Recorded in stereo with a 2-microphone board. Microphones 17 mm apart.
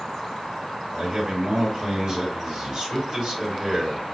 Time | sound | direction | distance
0.9 | a man speaking | 45° right (ahead or behind) | 2 m